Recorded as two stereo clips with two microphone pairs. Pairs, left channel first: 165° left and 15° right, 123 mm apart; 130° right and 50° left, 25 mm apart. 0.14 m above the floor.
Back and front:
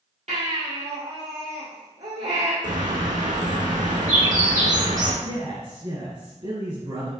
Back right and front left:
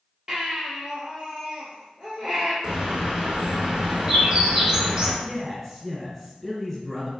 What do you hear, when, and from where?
0.3 s a baby crying: 5° right, 2 m
2.6 s a bird: 10° right, 1.5 m
5.2 s a man speaking: 45° right, 1.7 m